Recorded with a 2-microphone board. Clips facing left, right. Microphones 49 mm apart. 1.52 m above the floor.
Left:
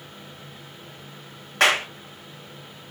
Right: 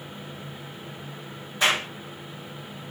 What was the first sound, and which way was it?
A clap, 75° left (ahead or behind).